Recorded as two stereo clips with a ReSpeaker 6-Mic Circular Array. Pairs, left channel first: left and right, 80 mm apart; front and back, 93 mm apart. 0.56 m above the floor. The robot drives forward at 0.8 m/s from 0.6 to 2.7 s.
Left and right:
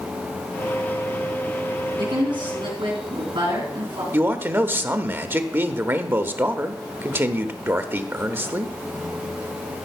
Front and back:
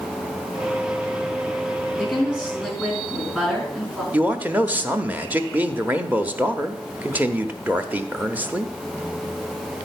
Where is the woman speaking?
90° right, 4 m; by 4.0 s 100° right, 4 m.